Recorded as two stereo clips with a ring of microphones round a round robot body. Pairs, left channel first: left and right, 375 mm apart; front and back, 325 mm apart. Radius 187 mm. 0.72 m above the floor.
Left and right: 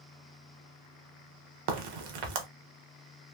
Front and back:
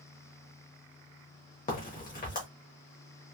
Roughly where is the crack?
Ahead right.